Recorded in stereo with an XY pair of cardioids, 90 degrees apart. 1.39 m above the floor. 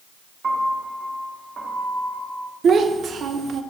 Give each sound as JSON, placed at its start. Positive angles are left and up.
{"t": 0.4, "sound": "a piano", "azimuth_deg": -45, "distance_m": 2.0}
{"t": 2.6, "sound": "a child speaking", "azimuth_deg": -60, "distance_m": 0.8}